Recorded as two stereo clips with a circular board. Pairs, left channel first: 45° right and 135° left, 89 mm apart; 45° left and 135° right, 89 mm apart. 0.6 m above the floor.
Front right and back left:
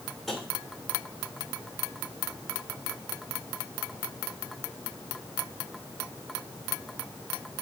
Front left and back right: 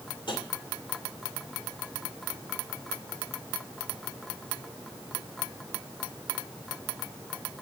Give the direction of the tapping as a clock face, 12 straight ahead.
11 o'clock.